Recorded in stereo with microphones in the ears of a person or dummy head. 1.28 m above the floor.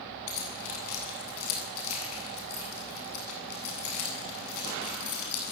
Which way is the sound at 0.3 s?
80° left.